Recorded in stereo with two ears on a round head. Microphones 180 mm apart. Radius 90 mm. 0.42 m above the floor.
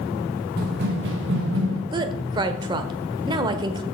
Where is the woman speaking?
20° right (ahead or behind), 1.1 m.